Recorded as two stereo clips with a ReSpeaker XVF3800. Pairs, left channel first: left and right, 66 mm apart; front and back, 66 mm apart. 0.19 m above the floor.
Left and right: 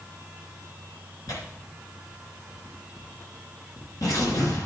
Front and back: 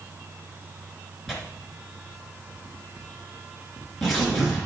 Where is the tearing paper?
85° left, 2.5 m.